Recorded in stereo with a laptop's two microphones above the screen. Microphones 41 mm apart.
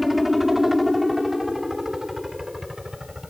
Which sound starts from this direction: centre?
A helicopter, at 0.0 s.